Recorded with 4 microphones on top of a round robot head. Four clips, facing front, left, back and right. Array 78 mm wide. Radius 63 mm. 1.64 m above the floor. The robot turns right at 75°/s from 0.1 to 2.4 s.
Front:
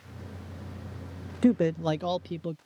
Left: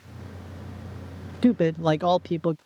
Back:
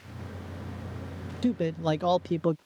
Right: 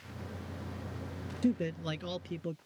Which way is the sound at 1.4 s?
50° left.